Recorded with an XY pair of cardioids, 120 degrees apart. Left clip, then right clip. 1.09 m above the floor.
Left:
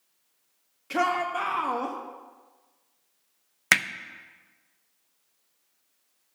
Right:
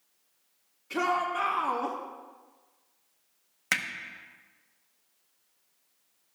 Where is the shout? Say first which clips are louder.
Left 2 dB; 65° left, 1.3 m; by 2.0 s 30° left, 1.0 m.